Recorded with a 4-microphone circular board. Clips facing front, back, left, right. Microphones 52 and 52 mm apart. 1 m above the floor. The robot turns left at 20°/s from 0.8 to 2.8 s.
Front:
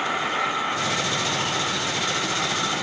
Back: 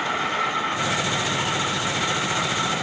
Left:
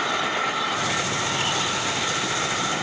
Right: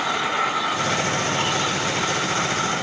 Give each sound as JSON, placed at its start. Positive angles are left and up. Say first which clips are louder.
{"t": 0.0, "sound": "an insect", "louder": "even, right 2 dB", "azimuth_deg": -100, "distance_m": 1.5}